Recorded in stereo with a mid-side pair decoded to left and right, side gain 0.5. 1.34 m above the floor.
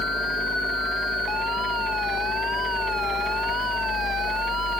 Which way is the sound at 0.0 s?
45° left.